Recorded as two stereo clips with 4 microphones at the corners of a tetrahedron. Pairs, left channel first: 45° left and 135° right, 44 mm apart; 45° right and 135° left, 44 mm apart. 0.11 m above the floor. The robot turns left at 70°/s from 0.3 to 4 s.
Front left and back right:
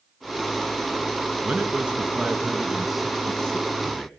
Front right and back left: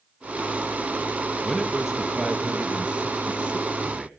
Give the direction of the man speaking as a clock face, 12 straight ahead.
4 o'clock.